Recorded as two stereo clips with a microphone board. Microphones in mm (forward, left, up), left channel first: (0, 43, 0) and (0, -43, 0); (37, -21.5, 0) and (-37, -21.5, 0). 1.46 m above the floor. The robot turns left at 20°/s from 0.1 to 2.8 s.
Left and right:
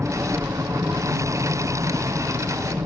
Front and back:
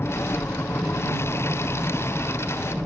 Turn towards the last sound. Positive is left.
turn(degrees=-95)